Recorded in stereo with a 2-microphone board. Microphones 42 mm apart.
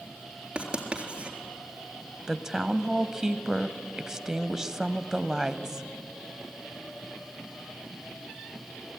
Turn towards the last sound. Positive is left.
turn(degrees=-15)  # may be behind; listen again after turning